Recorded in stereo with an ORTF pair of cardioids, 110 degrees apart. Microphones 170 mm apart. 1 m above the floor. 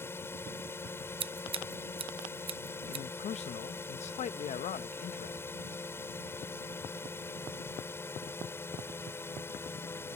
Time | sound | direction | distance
0.0 | a drone | 15° left | ?
1.2 | scissors | 35° right | ?
2.9 | a man speaking | 45° left | ?